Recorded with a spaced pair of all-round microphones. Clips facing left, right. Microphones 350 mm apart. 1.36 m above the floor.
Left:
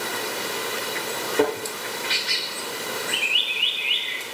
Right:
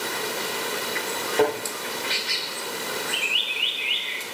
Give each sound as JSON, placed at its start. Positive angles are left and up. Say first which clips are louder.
{"t": 1.3, "sound": "a thud", "louder": "even", "side_deg": 15, "distance_m": 7.5}